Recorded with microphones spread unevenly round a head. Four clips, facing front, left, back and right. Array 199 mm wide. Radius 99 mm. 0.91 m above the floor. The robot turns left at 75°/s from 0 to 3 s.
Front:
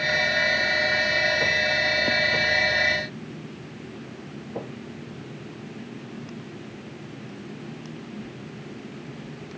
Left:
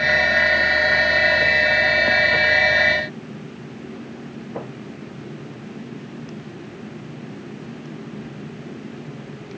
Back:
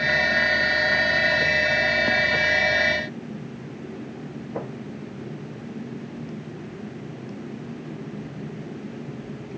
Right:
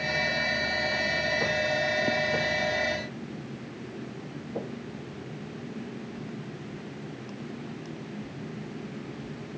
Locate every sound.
Only background noise.